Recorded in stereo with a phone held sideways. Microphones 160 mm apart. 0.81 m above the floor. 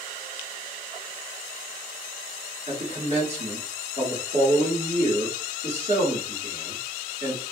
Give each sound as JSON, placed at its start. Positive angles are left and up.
{"t": 2.7, "sound": "a man speaking", "side_deg": -40, "distance_m": 1.5}